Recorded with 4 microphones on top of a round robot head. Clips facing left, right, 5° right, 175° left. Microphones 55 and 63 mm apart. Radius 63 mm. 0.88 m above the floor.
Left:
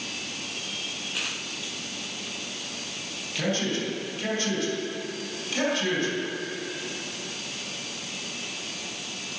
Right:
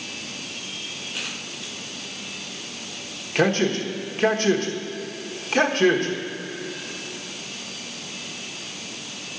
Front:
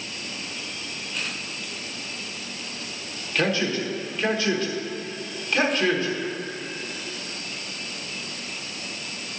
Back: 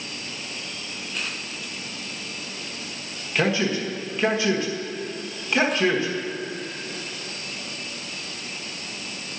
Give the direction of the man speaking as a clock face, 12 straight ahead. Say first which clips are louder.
Right 7 dB, back 1 dB; 4 o'clock.